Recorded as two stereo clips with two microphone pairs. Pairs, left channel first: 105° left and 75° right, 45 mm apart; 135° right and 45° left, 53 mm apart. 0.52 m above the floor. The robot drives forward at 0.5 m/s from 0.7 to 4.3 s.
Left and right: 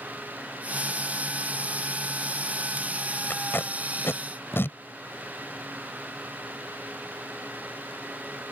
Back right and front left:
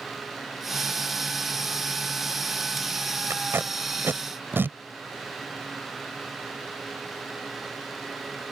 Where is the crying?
I don't hear crying.